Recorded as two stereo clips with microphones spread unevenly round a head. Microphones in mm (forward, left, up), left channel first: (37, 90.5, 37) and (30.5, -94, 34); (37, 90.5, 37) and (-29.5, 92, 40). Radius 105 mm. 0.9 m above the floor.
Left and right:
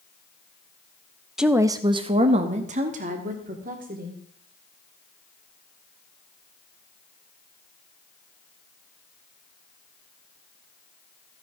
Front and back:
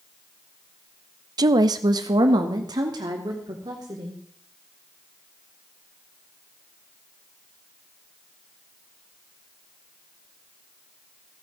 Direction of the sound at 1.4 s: Straight behind.